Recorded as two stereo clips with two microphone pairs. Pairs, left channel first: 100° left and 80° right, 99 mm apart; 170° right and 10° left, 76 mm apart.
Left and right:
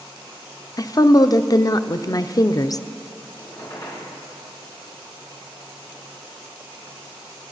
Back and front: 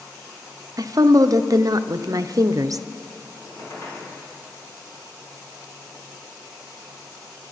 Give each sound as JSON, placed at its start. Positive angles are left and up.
{"t": 0.8, "sound": "a woman speaking", "azimuth_deg": 50, "distance_m": 0.5}
{"t": 3.4, "sound": "a squeak", "azimuth_deg": 140, "distance_m": 7.0}